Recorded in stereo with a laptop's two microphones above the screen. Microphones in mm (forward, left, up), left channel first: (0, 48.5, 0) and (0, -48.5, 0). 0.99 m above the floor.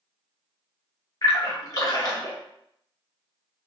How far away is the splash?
About 0.8 m.